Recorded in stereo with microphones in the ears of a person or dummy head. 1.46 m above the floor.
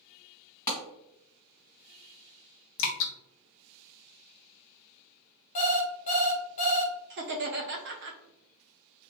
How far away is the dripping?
About 0.6 m.